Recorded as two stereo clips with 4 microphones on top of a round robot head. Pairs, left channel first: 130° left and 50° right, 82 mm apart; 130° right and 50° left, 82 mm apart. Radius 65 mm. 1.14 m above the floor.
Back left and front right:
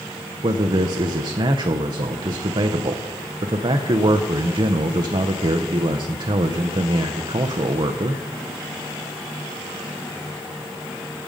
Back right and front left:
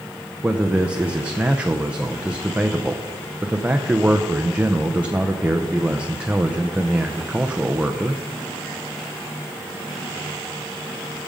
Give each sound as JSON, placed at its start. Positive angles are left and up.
{"t": 0.4, "sound": "a man speaking", "azimuth_deg": -25, "distance_m": 0.6}